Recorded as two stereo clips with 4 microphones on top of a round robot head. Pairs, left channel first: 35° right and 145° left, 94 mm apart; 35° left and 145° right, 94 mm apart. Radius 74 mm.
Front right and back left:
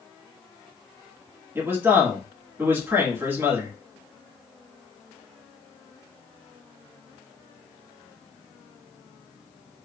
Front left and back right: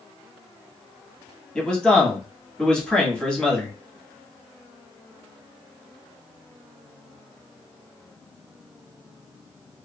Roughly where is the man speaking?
Left.